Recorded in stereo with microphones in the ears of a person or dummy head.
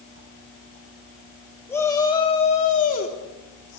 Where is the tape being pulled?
I don't hear tape being pulled.